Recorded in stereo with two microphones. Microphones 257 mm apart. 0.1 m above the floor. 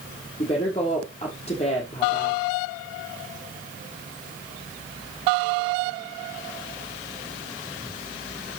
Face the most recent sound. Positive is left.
turn(degrees=25)  # may be behind; listen again after turning